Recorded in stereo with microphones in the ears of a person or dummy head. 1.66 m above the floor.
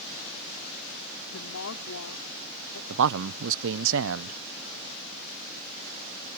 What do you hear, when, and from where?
1.3 s a woman speaking: 80° left; by 2.8 s 85° left
2.9 s a man speaking: 70° right (ahead or behind)